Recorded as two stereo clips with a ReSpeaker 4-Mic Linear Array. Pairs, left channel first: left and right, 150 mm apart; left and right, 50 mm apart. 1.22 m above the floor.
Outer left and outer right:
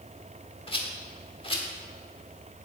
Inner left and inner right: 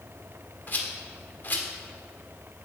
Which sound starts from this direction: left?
A rattle, at 0.7 s.